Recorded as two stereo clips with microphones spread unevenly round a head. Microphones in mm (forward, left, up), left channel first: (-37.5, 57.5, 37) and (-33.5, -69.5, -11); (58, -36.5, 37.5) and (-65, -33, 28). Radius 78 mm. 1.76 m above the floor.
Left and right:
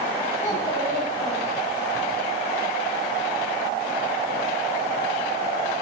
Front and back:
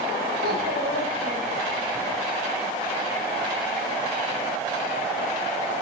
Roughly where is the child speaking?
Behind left.